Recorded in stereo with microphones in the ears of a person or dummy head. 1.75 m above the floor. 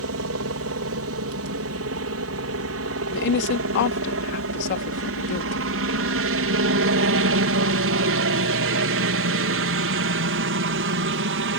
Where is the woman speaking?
60° left (ahead or behind).